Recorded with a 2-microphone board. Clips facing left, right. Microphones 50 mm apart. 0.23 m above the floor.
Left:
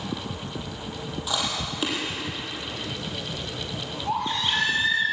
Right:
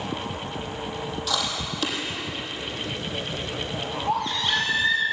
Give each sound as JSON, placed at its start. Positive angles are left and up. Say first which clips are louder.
{"t": 1.3, "sound": "chewing", "louder": "left 1 dB", "side_deg": 20, "distance_m": 6.0}
{"t": 4.1, "sound": "a baby crying", "louder": "right 1 dB", "side_deg": 15, "distance_m": 5.5}